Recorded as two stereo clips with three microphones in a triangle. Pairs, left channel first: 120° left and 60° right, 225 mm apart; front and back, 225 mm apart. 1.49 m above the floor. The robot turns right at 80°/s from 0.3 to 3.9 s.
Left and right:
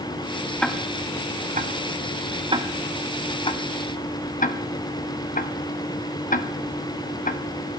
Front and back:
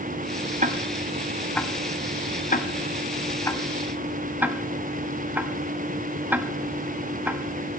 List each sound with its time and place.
0.6 s ticking: 160° right, 0.7 m; by 7.8 s 105° left, 0.7 m